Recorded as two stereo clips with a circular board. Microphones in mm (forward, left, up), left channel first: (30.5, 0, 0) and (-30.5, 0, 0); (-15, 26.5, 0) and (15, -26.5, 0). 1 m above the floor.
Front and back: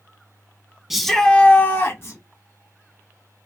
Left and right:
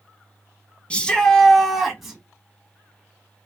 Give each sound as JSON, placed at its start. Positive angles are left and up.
{"t": 0.9, "sound": "a shout", "azimuth_deg": 105, "distance_m": 0.6}